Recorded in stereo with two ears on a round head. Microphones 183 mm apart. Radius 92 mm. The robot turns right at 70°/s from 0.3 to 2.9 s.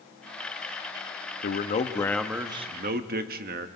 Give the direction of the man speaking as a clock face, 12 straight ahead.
8 o'clock.